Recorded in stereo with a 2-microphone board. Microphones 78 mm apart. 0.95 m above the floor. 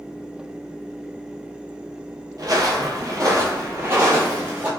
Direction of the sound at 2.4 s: 55° right (ahead or behind).